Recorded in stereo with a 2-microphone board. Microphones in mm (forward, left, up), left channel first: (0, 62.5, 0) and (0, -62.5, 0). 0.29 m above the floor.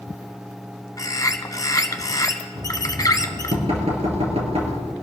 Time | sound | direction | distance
1.0 | a bird | 30° left (ahead or behind) | 1.0 m
2.5 | knocking | 55° right (ahead or behind) | 3 m